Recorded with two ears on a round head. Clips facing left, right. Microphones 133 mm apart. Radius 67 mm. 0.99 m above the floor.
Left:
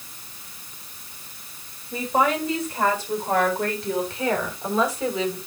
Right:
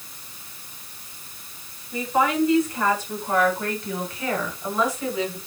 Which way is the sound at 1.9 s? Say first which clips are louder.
Even; 30° left (ahead or behind).